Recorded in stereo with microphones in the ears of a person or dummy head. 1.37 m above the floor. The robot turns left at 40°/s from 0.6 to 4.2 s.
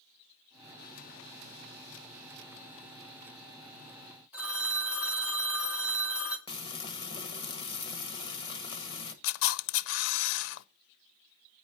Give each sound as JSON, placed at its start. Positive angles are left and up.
{"t": 4.3, "sound": "a phone ringing", "side_deg": -10, "distance_m": 1.7}
{"t": 6.5, "sound": "frying", "side_deg": 30, "distance_m": 1.4}
{"t": 9.2, "sound": "a camera shutter", "side_deg": 75, "distance_m": 0.5}